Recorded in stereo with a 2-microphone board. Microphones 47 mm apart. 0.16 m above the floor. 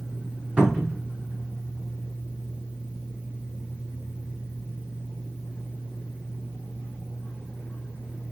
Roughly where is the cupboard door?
Right.